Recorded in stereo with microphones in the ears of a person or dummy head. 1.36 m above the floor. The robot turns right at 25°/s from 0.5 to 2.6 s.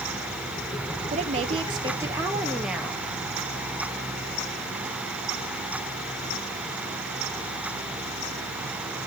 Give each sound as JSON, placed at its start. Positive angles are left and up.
{"t": 1.1, "sound": "a woman speaking", "azimuth_deg": -45, "distance_m": 2.0}